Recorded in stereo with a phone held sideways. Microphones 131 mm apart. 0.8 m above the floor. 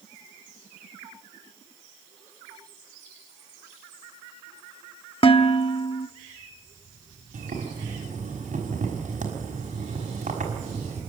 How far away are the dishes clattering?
About 0.9 m.